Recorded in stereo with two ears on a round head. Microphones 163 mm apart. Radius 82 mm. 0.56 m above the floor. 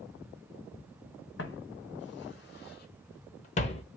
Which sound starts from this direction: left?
Footsteps, at 1.4 s.